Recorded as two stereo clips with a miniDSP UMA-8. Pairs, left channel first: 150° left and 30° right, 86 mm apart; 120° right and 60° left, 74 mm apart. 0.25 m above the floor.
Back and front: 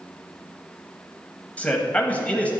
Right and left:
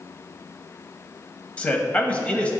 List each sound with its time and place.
1.6 s a man speaking: 165° right, 1.0 m